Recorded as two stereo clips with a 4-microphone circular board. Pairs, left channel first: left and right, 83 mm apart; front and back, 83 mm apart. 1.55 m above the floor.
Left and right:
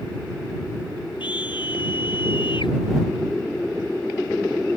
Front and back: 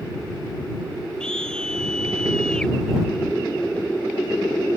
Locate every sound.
1.2 s a scream: 80° left